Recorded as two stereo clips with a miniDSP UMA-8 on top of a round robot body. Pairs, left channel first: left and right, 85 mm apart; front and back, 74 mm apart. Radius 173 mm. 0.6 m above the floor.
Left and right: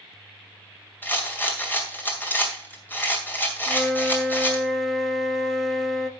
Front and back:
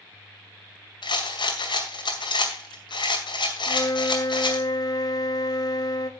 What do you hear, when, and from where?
1.0 s a rattle: 20° left, 2.5 m
3.7 s a flute: 5° left, 1.3 m